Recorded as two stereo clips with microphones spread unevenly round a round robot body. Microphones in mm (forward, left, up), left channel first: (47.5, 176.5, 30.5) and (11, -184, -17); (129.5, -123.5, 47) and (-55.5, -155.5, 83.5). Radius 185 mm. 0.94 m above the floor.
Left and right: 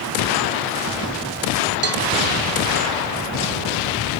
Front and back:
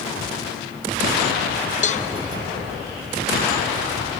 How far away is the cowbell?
About 1.2 m.